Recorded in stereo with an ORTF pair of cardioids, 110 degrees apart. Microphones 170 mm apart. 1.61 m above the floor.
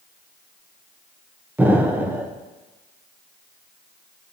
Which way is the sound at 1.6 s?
10° right.